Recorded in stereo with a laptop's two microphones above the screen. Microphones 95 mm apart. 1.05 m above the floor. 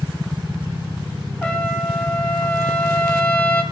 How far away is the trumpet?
About 3 m.